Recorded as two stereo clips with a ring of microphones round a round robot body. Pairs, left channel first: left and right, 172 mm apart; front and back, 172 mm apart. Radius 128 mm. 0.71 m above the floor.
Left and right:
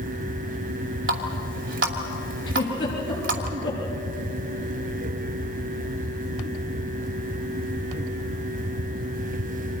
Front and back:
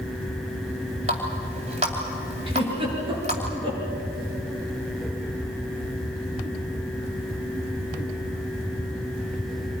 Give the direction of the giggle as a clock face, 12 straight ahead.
8 o'clock.